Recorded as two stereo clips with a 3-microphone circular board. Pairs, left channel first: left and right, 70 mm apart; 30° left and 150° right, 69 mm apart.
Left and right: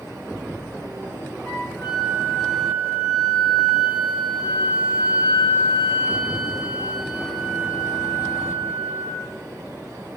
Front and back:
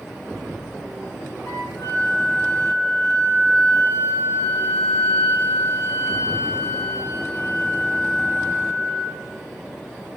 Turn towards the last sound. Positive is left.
turn(degrees=35)